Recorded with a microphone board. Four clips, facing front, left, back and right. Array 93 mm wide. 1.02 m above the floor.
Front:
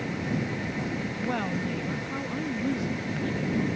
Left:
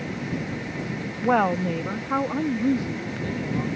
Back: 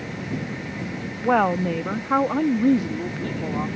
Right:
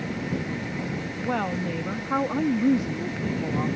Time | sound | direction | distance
1.2 | a woman speaking | 140° left | ?